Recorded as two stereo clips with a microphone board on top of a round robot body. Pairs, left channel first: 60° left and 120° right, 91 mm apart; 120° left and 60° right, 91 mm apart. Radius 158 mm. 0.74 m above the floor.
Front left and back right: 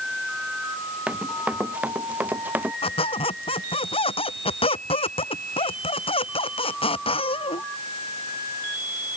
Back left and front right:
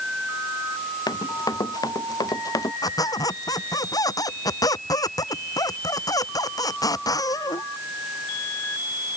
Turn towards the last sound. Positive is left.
turn(degrees=70)